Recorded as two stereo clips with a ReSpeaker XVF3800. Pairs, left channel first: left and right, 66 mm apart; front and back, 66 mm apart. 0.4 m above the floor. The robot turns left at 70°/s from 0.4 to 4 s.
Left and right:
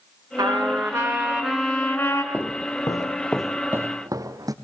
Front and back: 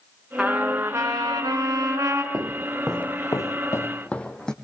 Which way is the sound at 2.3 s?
160° left.